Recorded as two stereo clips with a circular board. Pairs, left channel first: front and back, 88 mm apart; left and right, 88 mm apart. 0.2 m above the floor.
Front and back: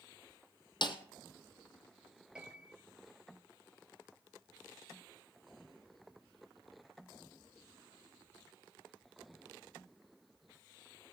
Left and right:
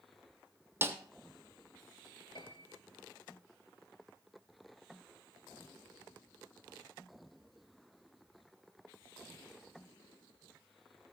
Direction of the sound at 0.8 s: 25° right.